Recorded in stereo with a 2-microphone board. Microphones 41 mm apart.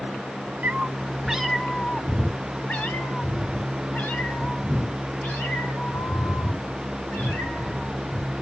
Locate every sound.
0.6 s a cat meowing: 45° right (ahead or behind), 0.6 m; by 8.3 s 70° left (ahead or behind), 4 m